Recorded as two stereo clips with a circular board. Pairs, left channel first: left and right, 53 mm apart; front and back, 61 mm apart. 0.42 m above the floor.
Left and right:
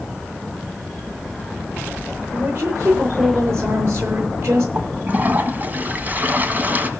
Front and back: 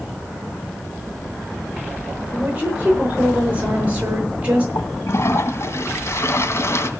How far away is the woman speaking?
About 7 m.